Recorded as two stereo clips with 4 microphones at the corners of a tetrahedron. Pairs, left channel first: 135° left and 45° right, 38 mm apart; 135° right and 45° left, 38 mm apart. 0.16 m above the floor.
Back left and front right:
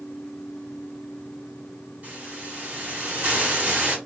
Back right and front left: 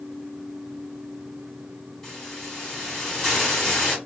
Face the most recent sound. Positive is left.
turn(degrees=-60)